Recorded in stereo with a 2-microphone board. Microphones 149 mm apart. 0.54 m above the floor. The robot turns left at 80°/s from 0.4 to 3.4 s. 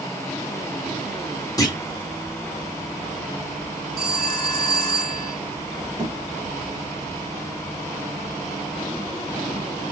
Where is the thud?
Centre (ahead or behind), 3 m.